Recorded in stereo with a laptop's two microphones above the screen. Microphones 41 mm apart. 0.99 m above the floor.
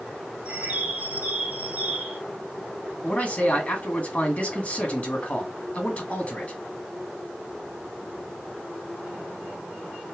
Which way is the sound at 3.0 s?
35° left (ahead or behind).